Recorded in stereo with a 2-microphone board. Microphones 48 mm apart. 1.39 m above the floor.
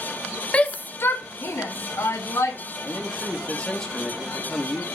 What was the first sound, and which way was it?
A shout, 25° left (ahead or behind).